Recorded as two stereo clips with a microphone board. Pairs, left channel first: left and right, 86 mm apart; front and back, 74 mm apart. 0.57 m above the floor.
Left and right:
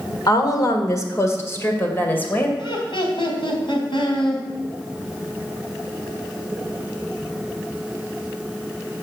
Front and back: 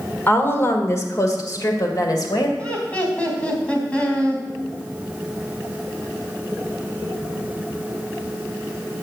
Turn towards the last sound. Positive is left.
turn(degrees=75)